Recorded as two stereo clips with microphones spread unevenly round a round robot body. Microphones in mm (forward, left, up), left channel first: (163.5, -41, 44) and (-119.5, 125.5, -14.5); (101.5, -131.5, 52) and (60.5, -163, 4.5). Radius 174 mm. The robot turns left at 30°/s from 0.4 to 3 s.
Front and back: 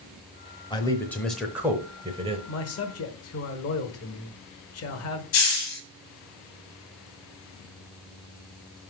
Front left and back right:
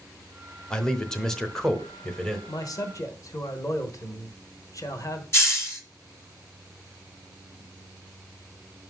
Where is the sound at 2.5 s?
20° right, 1.3 m; by 5.2 s 35° right, 1.3 m.